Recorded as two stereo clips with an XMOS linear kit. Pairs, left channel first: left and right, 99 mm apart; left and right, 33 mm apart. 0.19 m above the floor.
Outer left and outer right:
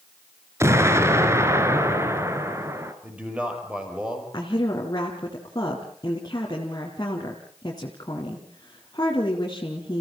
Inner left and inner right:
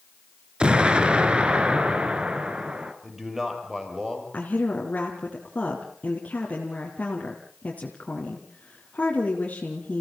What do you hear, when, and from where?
0.6 s an explosion: 30° right (ahead or behind), 1.9 m
3.0 s a man speaking: 10° right (ahead or behind), 6 m
4.3 s a woman speaking: 45° left (ahead or behind), 3 m